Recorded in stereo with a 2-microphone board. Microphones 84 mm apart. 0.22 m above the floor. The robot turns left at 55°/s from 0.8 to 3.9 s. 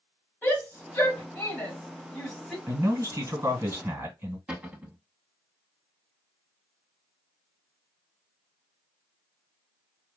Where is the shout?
25° left (ahead or behind), 1.4 m; by 2.6 s 5° right (ahead or behind), 1.4 m.